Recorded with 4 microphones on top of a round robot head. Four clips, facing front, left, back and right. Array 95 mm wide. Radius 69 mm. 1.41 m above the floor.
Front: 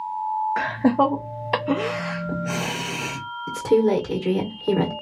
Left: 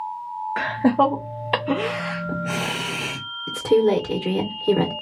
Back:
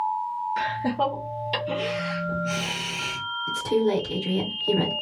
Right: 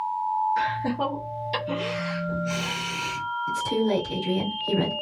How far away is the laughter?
About 0.6 m.